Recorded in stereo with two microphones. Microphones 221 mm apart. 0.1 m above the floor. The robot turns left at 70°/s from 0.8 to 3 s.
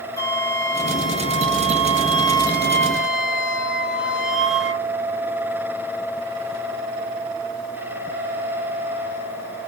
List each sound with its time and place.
0.2 s a flute: 15° left (ahead or behind), 0.8 m; by 4.8 s centre (ahead or behind), 0.8 m